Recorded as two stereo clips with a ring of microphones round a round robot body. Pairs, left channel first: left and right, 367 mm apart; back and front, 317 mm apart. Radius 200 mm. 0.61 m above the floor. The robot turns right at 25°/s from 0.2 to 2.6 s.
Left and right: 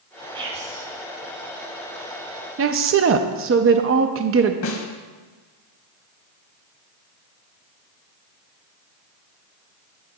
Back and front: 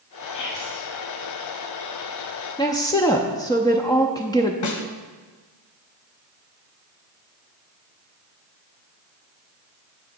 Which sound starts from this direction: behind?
Whispering, at 0.3 s.